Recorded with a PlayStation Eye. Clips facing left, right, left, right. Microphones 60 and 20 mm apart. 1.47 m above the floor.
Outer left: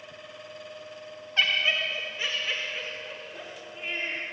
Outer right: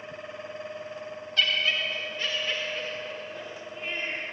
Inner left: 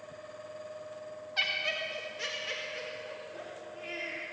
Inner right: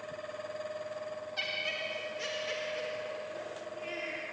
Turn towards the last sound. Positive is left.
turn(degrees=0)  # may be behind; listen again after turning